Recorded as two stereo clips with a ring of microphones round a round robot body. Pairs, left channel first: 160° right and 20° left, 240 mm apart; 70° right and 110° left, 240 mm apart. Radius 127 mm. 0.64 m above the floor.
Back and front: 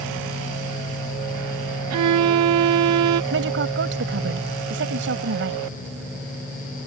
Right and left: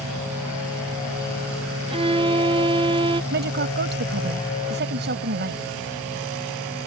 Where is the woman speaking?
65° left.